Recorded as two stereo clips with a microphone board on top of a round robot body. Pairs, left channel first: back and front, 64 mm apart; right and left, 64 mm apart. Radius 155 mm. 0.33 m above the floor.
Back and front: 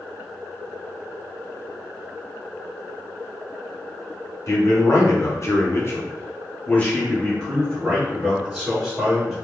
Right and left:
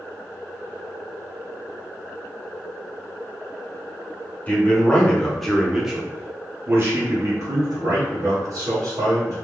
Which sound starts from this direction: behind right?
A man speaking, at 4.5 s.